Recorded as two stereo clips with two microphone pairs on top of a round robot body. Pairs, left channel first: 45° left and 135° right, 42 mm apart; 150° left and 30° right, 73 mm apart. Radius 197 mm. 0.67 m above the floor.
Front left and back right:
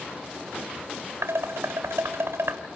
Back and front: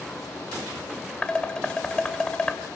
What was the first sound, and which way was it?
Dishes clattering, 135° right.